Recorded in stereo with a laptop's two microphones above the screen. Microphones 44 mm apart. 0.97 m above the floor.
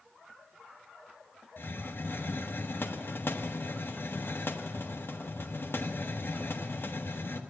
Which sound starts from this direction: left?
A hiss, at 1.6 s.